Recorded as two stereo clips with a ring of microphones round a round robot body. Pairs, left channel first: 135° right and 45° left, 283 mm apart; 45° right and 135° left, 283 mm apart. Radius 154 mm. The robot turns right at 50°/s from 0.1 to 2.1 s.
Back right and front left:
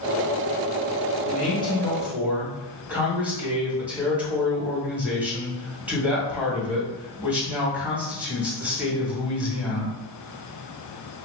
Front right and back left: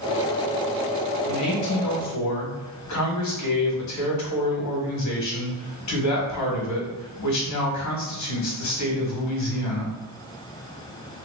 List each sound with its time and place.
1.3 s a man speaking: 80° right, 1.9 m; by 10.0 s 40° right, 1.9 m